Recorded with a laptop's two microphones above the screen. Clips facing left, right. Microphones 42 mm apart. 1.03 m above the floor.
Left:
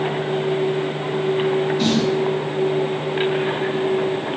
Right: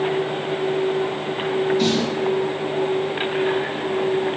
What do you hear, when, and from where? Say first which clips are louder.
1.8 s a snare drum: left 1 dB; 5° left (ahead or behind), 1.5 m